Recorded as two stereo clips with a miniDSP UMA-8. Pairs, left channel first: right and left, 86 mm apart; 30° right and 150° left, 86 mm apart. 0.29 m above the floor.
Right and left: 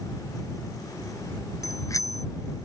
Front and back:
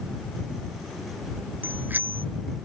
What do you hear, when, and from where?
1.6 s a bicycle bell: 140° right